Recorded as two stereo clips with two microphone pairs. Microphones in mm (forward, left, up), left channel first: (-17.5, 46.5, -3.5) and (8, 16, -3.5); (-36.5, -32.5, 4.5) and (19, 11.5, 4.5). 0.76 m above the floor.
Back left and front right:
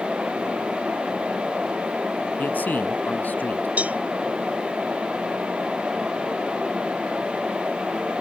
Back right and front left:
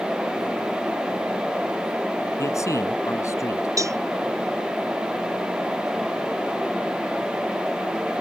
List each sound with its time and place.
2.4 s a man speaking: 175° left
3.8 s a cowbell: straight ahead